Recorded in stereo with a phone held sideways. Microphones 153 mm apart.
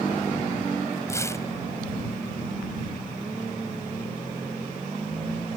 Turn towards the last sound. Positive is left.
turn(degrees=20)  # may be behind; listen again after turning